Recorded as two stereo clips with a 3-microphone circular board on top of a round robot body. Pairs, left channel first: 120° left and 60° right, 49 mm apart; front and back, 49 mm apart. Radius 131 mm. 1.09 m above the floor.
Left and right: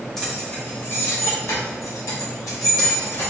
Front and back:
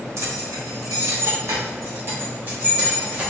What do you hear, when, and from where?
0.2 s keys jangling: 155° right, 0.8 m; by 3.3 s 115° left, 1.7 m